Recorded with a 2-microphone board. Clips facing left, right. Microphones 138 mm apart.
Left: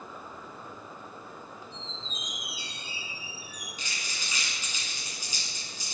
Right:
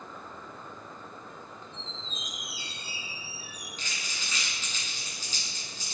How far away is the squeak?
About 2 m.